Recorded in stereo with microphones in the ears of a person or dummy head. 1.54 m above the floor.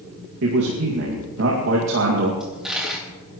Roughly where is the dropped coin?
Centre.